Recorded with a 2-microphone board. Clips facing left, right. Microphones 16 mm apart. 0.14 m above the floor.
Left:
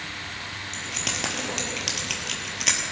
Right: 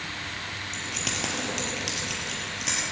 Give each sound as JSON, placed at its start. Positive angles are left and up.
{"t": 0.7, "sound": "keys jangling", "side_deg": 0, "distance_m": 2.0}